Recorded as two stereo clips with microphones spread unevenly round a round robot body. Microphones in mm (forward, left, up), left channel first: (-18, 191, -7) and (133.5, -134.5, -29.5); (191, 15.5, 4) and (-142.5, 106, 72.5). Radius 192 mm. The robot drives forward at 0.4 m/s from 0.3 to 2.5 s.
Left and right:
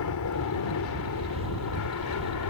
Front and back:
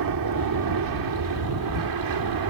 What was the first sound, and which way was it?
An aircraft, 150° left.